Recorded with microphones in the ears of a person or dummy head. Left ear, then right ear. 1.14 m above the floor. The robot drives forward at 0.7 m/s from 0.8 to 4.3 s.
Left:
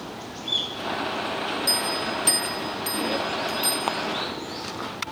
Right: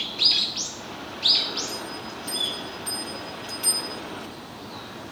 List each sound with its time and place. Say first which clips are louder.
1.7 s a bell: left 9 dB; 55° left (ahead or behind), 0.7 m; by 4.0 s 20° left (ahead or behind), 1.6 m